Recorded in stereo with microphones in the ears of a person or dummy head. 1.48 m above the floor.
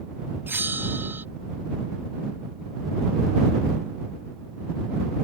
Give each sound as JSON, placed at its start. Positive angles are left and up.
{"t": 0.5, "sound": "a bell", "side_deg": -10}